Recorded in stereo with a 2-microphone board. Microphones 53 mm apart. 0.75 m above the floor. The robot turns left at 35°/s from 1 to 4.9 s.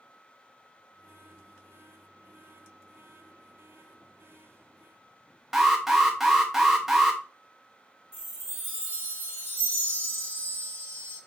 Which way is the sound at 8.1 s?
50° left (ahead or behind).